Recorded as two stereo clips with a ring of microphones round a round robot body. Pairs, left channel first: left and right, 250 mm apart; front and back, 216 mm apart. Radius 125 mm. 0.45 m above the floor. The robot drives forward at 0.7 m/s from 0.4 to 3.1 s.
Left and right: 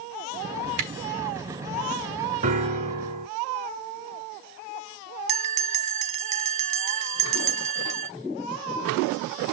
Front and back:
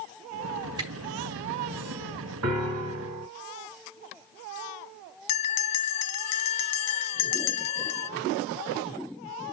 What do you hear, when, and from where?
0.8 s a camera shutter: 110° right, 4 m
2.4 s a piano: 155° right, 4.5 m
5.3 s a bell: 25° right, 0.6 m